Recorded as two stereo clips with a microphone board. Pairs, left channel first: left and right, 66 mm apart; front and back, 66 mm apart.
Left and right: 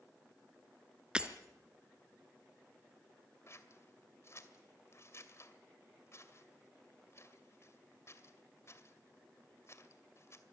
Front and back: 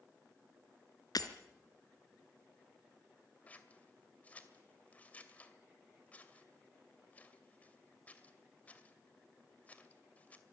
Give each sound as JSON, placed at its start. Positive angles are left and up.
{"t": 1.1, "sound": "breaking glass", "azimuth_deg": -15, "distance_m": 1.7}
{"t": 3.5, "sound": "scissors", "azimuth_deg": 60, "distance_m": 2.0}